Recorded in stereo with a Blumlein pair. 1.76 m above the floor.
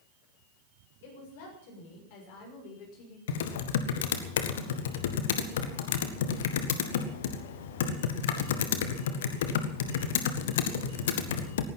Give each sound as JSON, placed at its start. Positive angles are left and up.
{"t": 1.0, "sound": "a woman speaking", "azimuth_deg": 50, "distance_m": 7.5}
{"t": 3.3, "sound": "typing on a keyboard", "azimuth_deg": 55, "distance_m": 1.6}